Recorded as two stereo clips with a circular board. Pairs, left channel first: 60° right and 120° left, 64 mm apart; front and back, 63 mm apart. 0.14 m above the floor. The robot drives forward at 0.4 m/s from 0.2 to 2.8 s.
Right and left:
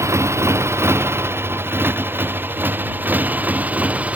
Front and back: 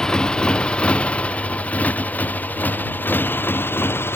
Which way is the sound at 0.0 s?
80° left.